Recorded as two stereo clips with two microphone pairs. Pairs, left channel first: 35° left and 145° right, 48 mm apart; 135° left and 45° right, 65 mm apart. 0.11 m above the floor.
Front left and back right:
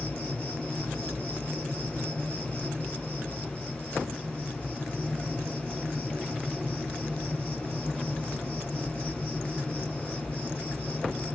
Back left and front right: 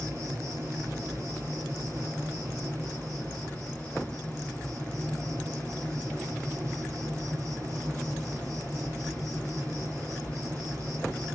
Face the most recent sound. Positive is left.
turn(degrees=-15)